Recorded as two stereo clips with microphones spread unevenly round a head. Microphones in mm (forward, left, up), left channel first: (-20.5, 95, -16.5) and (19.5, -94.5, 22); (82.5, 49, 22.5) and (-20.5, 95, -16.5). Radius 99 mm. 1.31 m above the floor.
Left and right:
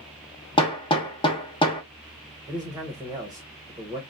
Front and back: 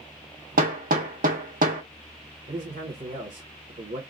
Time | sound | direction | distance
0.6 | hammering | 175° left | 1.0 m
2.5 | a man speaking | 150° right | 0.9 m